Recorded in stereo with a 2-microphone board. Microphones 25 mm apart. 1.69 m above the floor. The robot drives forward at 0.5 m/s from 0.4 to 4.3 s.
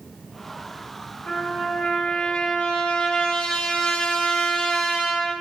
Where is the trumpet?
70° left (ahead or behind), 2 m; by 5.3 s 50° left (ahead or behind), 2.5 m.